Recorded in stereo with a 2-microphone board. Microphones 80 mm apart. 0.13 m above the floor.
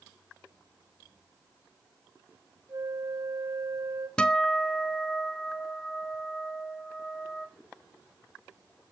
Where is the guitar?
10° left (ahead or behind), 0.6 m.